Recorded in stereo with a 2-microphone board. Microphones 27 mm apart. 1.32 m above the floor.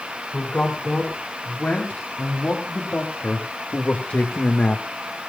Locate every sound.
0.3 s a man speaking: 70° left (ahead or behind), 6 m; by 4.9 s 60° left (ahead or behind), 1.7 m